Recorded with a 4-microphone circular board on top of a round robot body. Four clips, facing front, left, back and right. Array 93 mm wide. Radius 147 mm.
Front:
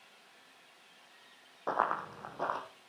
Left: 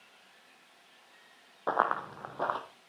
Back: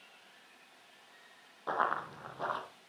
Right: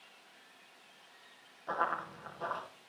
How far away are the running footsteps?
About 2 m.